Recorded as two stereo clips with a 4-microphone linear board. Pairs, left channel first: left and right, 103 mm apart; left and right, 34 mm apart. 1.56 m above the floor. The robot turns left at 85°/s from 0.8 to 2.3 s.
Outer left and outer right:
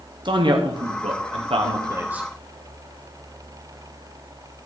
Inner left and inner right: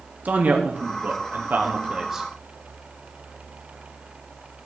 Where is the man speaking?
50° right, 1.1 m; by 2.3 s 175° right, 1.1 m.